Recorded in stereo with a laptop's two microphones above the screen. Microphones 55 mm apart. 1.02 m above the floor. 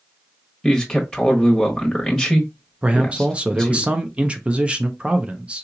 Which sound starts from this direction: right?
A man speaking, at 2.8 s.